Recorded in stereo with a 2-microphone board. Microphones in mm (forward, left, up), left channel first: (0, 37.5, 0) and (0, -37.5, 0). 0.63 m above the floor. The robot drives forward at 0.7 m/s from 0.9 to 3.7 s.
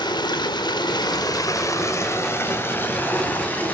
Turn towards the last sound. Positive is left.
turn(degrees=20)  # may be behind; listen again after turning